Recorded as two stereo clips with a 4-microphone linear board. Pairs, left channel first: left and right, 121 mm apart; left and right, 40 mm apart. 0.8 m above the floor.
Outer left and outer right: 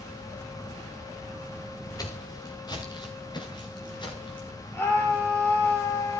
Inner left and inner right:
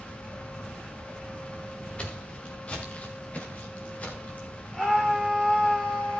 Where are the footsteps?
30° left (ahead or behind), 4.5 m; by 4.5 s 40° left (ahead or behind), 6.5 m.